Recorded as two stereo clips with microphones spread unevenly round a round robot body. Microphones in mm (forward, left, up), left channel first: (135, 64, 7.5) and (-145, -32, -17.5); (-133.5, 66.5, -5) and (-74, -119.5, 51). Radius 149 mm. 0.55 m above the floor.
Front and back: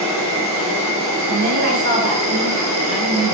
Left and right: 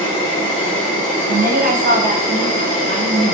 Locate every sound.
0.0 s an insect: 140° left, 1.8 m
1.3 s a woman speaking: 120° right, 0.8 m